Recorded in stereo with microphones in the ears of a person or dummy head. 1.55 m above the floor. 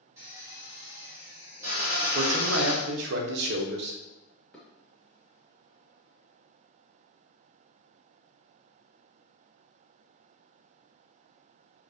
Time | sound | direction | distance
0.2 | a drill | 15° right (ahead or behind) | 2 m
2.1 | a man speaking | 65° right (ahead or behind) | 0.9 m
4.5 | dishes clattering | centre (ahead or behind) | 1.2 m